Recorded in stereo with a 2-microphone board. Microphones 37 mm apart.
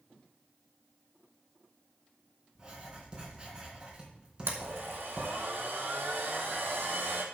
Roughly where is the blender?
Right.